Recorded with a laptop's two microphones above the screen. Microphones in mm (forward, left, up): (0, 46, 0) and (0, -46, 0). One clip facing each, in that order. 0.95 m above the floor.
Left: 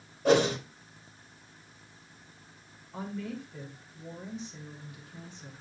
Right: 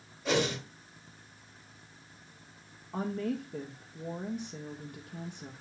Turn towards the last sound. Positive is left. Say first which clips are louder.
# right 4 dB
turn(degrees=-50)  # may be behind; listen again after turning